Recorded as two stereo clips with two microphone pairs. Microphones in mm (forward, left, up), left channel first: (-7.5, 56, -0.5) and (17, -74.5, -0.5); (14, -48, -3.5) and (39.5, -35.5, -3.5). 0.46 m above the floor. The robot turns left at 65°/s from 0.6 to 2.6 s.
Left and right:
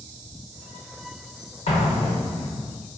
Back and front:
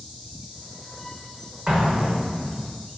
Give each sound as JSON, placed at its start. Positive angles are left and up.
{"t": 1.7, "sound": "an explosion", "azimuth_deg": 90, "distance_m": 1.0}